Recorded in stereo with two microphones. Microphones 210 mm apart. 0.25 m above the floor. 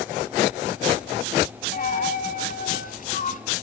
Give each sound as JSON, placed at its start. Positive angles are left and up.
{"t": 1.7, "sound": "a dropped coin", "side_deg": 40, "distance_m": 0.8}